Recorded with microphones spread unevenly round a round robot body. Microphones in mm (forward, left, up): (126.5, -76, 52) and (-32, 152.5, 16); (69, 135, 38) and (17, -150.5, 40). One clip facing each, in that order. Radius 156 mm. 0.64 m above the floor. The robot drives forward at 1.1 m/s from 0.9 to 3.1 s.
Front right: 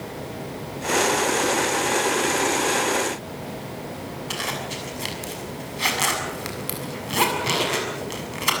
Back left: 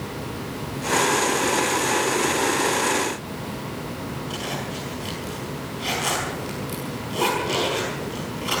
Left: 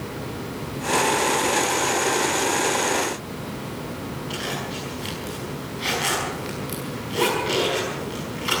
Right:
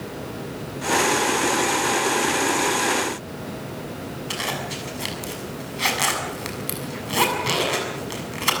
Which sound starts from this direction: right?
A zipper, at 4.3 s.